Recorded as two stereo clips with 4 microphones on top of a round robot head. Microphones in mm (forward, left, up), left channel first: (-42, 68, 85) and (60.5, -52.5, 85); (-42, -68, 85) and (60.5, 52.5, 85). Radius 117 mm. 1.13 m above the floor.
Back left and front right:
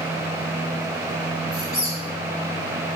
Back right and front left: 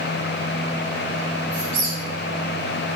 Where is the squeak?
65° left, 1.6 m.